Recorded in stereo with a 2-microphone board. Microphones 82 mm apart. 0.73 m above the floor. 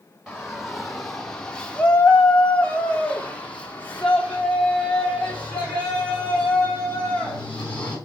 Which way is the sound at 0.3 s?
5° right (ahead or behind).